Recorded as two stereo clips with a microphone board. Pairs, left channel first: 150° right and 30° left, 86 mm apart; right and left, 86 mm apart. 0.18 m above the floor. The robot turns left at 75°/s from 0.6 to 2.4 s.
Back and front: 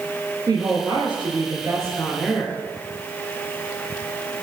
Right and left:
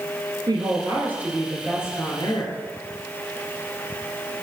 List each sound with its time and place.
0.5 s a woman speaking: 65° left, 2.5 m; by 2.6 s 70° right, 2.5 m